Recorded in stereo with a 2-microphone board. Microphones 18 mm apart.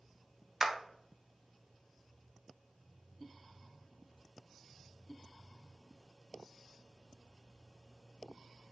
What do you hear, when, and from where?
0.6 s a clap: 30° right (ahead or behind), 0.6 m